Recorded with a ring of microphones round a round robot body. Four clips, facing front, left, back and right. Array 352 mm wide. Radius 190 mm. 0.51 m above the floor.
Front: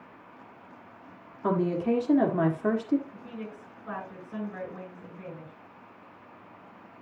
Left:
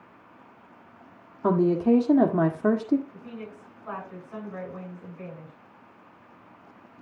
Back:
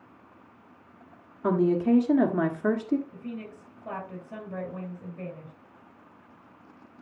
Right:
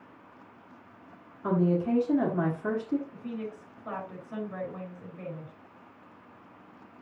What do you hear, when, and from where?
1.4 s a woman speaking: 110° left, 1.7 m
3.1 s a woman speaking: 150° right, 5.5 m